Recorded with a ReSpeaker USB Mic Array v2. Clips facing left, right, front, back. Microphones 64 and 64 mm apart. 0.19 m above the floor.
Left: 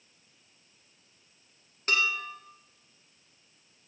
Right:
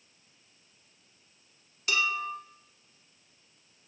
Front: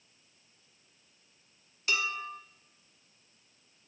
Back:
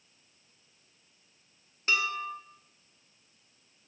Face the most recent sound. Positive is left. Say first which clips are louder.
# even, back 3 dB
turn(degrees=130)